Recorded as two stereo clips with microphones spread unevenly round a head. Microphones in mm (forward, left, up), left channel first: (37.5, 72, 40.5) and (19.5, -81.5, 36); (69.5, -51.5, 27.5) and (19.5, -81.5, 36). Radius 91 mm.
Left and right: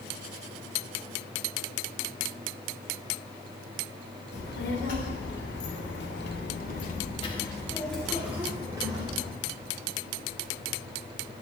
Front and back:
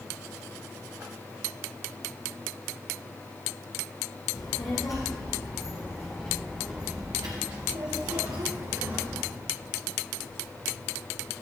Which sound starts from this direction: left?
A child speaking, at 4.3 s.